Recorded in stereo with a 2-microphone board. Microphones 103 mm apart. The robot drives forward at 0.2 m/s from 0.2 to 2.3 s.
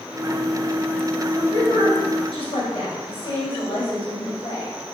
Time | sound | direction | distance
1.4 | a woman speaking | 60° left (ahead or behind) | 1.7 m